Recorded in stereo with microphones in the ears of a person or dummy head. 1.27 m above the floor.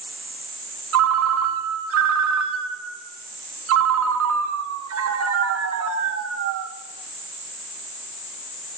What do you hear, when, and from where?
0.9 s a ringtone: 80° right, 1.4 m